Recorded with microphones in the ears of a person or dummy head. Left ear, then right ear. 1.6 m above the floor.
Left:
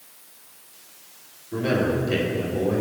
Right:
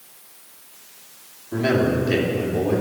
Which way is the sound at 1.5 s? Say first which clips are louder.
Right 3 dB; 35° right (ahead or behind).